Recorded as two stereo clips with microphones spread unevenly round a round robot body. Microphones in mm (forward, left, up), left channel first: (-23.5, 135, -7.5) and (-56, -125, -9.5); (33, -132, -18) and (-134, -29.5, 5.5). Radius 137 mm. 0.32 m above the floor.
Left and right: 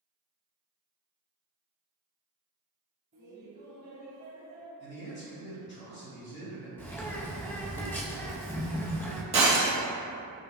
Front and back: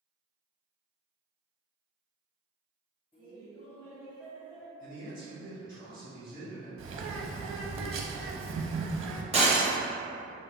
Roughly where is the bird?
Behind.